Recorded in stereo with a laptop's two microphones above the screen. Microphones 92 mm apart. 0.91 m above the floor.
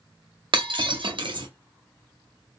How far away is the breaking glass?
About 0.6 m.